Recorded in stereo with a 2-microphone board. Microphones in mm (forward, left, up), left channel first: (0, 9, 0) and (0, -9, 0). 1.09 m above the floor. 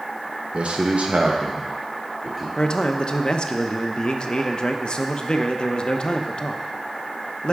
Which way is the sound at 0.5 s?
70° right (ahead or behind).